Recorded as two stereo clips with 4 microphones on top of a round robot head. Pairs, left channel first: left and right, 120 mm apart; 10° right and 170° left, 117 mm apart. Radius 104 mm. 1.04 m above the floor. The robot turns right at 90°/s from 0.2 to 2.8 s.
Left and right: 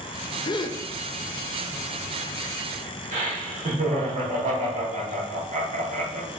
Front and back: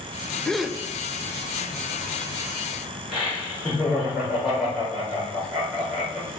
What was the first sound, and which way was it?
A gasp, 65° left.